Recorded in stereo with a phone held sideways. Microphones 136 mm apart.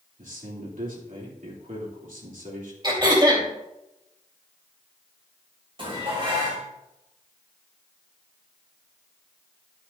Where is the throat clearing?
35° right (ahead or behind), 2.5 m.